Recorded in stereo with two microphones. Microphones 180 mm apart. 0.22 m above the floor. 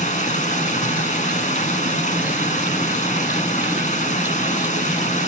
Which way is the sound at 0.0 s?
45° left (ahead or behind).